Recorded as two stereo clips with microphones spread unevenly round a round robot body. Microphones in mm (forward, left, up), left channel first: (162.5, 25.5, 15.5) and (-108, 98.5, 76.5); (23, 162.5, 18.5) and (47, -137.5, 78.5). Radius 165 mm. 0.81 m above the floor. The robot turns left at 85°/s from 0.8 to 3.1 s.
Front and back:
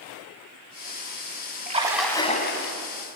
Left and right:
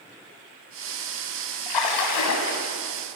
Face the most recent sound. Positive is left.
turn(degrees=-10)